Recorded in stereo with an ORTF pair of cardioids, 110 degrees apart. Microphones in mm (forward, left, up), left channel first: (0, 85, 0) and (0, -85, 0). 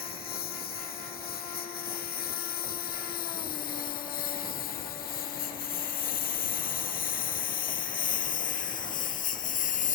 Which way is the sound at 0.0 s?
65° left.